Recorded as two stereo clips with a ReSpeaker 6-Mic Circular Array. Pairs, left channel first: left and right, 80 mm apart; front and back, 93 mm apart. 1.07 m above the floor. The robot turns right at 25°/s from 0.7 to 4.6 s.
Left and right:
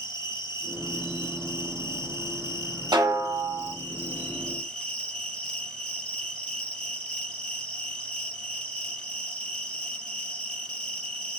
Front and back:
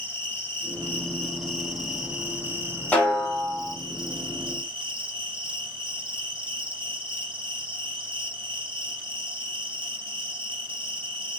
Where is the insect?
65° left, 3.5 m; by 11.4 s 165° left, 3.5 m.